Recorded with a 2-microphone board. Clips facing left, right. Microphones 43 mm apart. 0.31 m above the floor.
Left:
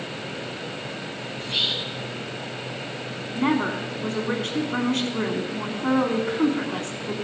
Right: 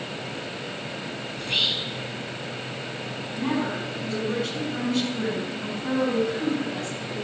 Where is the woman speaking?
50° left (ahead or behind), 2.5 m.